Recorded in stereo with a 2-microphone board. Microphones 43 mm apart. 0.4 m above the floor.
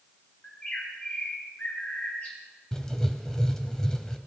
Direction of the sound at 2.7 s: 15° left (ahead or behind).